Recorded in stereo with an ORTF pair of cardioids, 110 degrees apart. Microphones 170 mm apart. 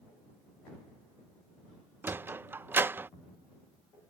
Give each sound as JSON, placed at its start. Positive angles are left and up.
{"t": 2.0, "sound": "a sliding door", "azimuth_deg": -15}